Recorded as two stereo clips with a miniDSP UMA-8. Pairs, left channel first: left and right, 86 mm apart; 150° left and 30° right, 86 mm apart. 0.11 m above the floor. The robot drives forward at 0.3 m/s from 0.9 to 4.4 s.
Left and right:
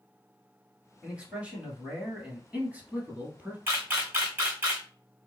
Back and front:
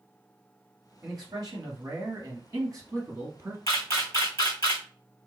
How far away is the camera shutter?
About 1.9 m.